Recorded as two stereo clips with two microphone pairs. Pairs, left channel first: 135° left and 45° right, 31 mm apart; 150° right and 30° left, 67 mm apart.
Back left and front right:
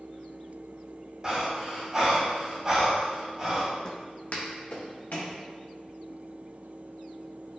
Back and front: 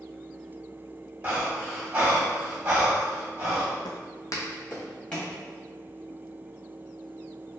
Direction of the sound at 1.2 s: 15° right.